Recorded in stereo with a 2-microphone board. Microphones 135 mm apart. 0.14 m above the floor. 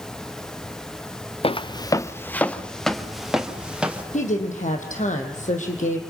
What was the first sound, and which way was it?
Footsteps, 50° left (ahead or behind).